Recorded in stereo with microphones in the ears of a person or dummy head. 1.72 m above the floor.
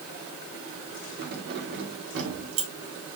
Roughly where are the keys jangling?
Right.